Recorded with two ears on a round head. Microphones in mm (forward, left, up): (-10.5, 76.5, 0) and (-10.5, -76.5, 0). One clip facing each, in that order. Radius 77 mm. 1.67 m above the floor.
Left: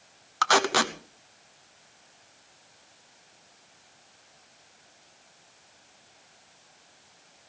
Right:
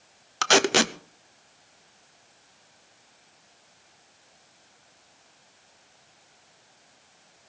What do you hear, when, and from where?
0.4 s tape being pulled: 30° right (ahead or behind), 0.9 m